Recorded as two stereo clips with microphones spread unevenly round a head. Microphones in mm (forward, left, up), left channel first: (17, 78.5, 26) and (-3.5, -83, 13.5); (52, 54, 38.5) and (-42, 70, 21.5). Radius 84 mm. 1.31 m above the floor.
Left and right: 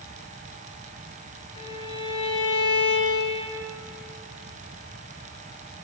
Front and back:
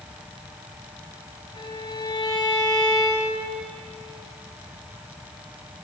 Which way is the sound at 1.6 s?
25° left.